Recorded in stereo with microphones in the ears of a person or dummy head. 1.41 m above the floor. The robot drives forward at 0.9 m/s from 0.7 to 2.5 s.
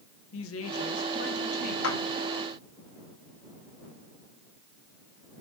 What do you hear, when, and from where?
0.3 s a woman speaking: 75° left (ahead or behind), 1.4 m; by 1.7 s 45° left (ahead or behind), 1.8 m
1.8 s a clap: 90° left, 2.5 m; by 2.0 s 85° left, 2.5 m